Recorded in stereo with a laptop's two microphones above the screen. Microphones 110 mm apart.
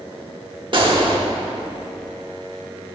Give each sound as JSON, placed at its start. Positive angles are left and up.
{"t": 0.7, "sound": "a gunshot", "side_deg": -50, "distance_m": 0.8}